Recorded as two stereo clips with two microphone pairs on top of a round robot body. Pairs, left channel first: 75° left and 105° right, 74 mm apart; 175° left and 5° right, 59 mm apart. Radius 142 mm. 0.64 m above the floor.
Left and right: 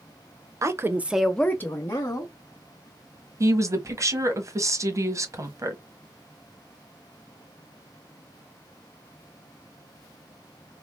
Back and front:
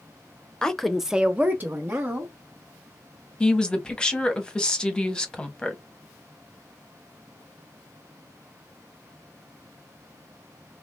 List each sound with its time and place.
0.6 s a woman speaking: 105° right, 0.8 m; by 2.3 s 40° left, 1.3 m
3.4 s a woman speaking: 110° right, 1.1 m